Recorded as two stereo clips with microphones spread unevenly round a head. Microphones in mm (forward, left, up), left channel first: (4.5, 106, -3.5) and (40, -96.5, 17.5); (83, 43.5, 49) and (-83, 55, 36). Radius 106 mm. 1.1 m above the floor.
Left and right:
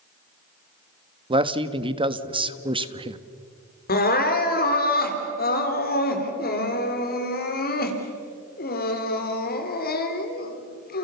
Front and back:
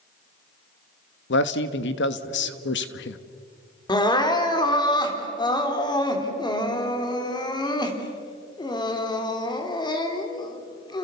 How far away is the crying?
About 3 m.